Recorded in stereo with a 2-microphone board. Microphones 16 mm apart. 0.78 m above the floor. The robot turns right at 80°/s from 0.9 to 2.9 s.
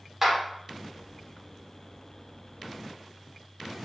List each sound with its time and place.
0.2 s a clap: 20° right (ahead or behind), 2 m